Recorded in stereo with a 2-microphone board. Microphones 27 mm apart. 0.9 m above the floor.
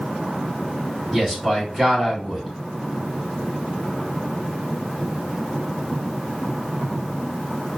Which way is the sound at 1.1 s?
Centre (ahead or behind).